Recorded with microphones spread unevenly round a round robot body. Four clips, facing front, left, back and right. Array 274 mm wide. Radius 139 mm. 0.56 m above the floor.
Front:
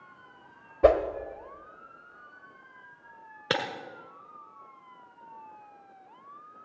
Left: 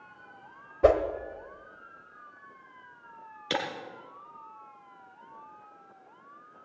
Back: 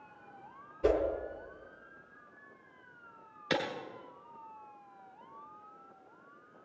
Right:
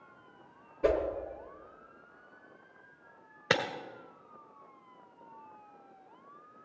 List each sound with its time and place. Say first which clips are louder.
0.8 s a whoosh: left 7 dB, front 8 dB; 30° left, 1.3 m
3.5 s breaking glass: right 1 dB, front 3 dB; 45° right, 1.8 m